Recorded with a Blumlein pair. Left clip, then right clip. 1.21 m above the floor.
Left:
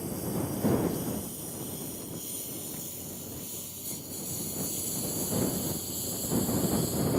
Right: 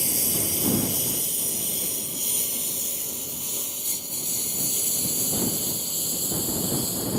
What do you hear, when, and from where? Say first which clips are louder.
0.0 s a lawn mower: right 7 dB; 40° right; by 7.2 s 25° right